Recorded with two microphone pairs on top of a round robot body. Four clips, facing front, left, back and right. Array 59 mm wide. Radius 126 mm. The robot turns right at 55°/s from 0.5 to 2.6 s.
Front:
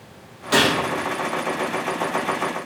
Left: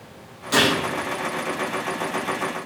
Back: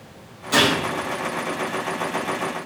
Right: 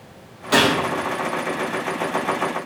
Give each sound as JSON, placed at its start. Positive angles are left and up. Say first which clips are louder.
{"t": 0.5, "sound": "a gunshot", "louder": "right 2 dB, even", "azimuth_deg": -70, "distance_m": 0.6}